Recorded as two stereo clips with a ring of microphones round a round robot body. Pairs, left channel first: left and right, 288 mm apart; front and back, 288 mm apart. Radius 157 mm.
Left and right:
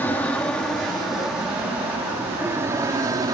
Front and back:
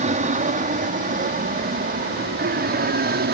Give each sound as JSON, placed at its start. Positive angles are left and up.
{"t": 0.0, "sound": "an aircraft", "azimuth_deg": 165}